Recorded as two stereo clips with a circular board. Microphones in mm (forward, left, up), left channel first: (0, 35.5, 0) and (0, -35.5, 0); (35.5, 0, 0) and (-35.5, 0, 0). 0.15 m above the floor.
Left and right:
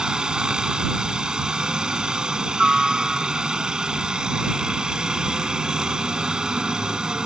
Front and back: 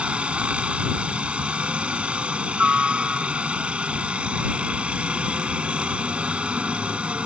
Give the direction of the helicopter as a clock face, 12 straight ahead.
5 o'clock.